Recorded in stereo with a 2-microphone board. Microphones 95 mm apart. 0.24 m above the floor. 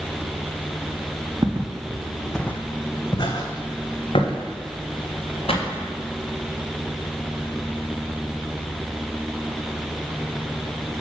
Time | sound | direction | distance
1.4 | footsteps | 35° right (ahead or behind) | 0.8 m